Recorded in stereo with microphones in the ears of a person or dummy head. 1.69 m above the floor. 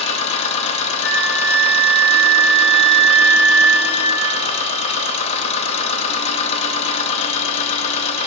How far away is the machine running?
About 0.7 m.